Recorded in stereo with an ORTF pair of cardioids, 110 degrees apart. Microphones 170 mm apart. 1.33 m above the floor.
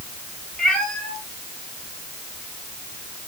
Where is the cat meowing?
Straight ahead, 7 m; by 3.3 s 15° left, 4 m.